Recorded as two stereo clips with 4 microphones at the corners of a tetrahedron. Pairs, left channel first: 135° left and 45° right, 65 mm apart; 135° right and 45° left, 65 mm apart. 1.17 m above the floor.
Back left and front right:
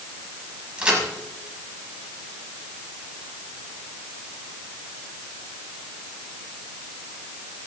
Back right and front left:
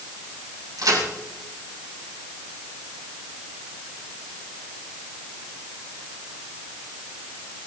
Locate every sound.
0.8 s a crack: 30° left, 7 m